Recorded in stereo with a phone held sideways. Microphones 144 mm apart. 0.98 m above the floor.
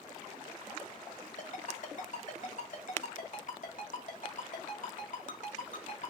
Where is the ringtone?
60° left (ahead or behind), 1.3 m.